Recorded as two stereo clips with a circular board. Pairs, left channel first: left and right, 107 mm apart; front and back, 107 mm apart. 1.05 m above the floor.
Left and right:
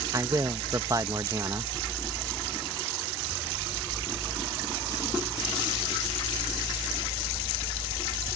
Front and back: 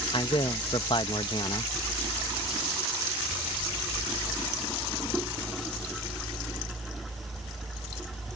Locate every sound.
0.1 s a man speaking: 35° right